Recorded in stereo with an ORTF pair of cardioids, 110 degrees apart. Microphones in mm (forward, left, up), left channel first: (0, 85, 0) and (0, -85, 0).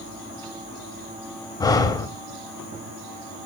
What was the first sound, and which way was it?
Breathing, 25° left.